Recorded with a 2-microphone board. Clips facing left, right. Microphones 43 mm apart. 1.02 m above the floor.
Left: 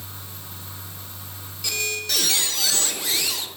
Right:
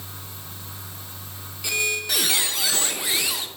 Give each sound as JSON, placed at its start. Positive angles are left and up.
{"t": 1.6, "sound": "a squeak", "side_deg": -20, "distance_m": 0.6}